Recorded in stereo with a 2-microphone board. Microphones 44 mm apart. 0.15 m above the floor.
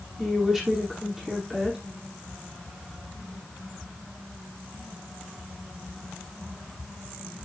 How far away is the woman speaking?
About 5.5 m.